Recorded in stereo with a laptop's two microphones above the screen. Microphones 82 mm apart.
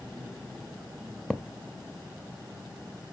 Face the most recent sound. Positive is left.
turn(degrees=5)  # may be behind; listen again after turning